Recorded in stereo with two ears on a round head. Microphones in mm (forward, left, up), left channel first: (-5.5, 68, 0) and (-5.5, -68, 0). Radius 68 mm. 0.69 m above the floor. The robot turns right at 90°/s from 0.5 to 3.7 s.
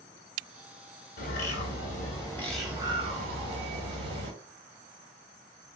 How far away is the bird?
About 1.4 m.